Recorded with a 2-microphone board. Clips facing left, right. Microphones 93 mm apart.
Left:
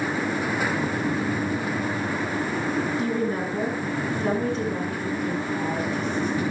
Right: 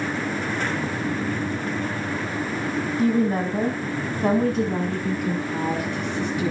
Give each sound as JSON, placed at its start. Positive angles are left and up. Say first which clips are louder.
{"t": 3.0, "sound": "a woman speaking", "louder": "right 4 dB", "side_deg": -40, "distance_m": 4.0}